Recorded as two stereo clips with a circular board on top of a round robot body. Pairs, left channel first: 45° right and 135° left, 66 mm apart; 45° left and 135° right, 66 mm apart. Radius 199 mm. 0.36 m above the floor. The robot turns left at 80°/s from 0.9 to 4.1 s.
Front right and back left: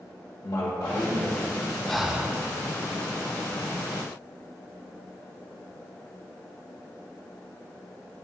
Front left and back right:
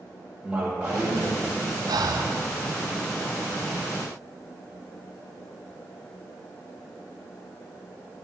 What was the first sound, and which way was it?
A man speaking, 65° right.